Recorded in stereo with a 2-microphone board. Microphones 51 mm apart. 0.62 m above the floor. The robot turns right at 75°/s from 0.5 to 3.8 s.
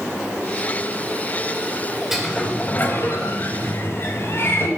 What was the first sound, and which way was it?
A sliding door, 5° right.